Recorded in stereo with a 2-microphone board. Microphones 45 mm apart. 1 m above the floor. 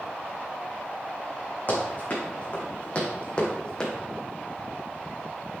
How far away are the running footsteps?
About 3.5 m.